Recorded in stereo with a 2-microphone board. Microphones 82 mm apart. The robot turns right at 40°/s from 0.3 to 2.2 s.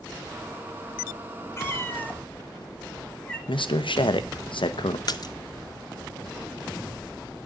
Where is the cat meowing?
30° left (ahead or behind), 1.5 m; by 3.4 s 10° left (ahead or behind), 1.5 m.